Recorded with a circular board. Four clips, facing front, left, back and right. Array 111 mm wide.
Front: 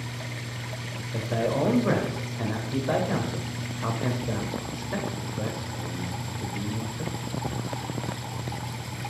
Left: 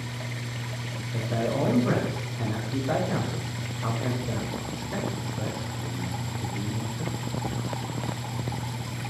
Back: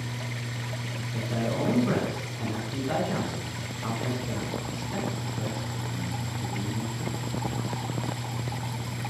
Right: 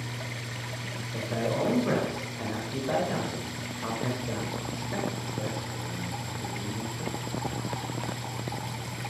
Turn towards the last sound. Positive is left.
turn(degrees=0)